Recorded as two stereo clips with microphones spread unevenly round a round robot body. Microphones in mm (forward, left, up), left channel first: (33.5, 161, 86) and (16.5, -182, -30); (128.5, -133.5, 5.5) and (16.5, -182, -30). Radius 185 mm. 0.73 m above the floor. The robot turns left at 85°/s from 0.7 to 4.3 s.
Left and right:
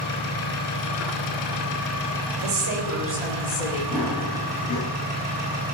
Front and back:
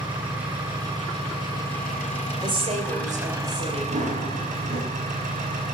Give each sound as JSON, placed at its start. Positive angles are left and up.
{"t": 0.0, "sound": "an engine running", "azimuth_deg": 135, "distance_m": 5.0}
{"t": 2.4, "sound": "a woman speaking", "azimuth_deg": -100, "distance_m": 3.0}
{"t": 3.9, "sound": "running footsteps", "azimuth_deg": -175, "distance_m": 7.5}